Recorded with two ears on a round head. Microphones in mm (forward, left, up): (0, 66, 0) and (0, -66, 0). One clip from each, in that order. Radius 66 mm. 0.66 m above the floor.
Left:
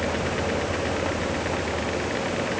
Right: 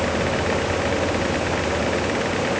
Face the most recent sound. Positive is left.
No sound to turn to.